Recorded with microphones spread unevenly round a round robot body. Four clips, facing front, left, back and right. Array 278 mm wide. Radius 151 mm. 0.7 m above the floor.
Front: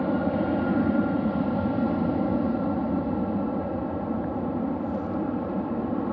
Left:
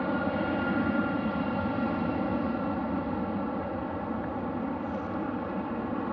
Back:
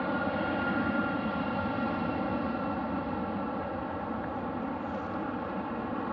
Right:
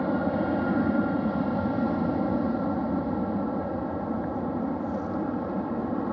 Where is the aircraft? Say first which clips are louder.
Right 3 dB, front 6 dB; 30° right.